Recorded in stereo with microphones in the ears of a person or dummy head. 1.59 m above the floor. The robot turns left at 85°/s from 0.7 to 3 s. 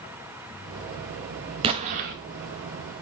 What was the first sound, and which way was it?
An explosion, 40° right.